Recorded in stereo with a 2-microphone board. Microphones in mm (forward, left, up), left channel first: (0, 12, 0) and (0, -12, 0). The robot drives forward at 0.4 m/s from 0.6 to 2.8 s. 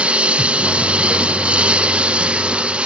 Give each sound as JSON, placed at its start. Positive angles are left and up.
{"t": 0.0, "sound": "a lawn mower", "side_deg": -55}